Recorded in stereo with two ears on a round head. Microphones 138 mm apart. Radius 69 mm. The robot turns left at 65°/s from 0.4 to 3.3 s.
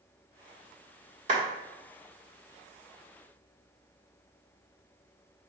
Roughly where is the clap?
Right.